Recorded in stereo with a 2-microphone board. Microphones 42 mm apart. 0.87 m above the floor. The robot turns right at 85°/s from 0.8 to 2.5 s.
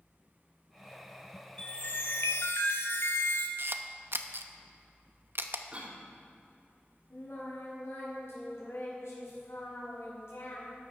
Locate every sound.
1.6 s a chime: 25° left, 1.3 m; by 3.5 s 100° left, 1.3 m
3.6 s a camera shutter: 60° right (ahead or behind), 0.8 m
5.7 s a cough: 30° right (ahead or behind), 2 m
7.1 s singing: 85° left, 5.5 m